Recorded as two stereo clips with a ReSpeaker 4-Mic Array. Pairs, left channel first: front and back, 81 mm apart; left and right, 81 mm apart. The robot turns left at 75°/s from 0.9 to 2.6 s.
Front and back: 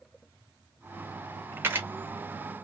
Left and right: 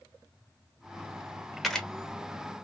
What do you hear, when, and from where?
1.6 s a camera shutter: straight behind, 0.7 m; by 1.9 s 160° left, 0.7 m